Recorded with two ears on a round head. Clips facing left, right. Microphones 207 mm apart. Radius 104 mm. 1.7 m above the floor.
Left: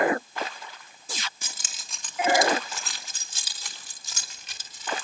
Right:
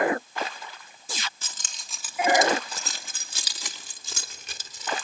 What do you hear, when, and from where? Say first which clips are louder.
1.4 s keys jangling: left 1 dB; 15° left (ahead or behind), 2.5 m; by 5.0 s 75° right (ahead or behind), 3.5 m